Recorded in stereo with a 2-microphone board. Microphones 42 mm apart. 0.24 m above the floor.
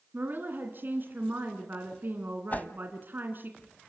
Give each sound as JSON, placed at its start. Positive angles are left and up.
{"t": 0.1, "sound": "a woman speaking", "side_deg": -55, "distance_m": 2.5}
{"t": 2.5, "sound": "a whoosh", "side_deg": 40, "distance_m": 0.7}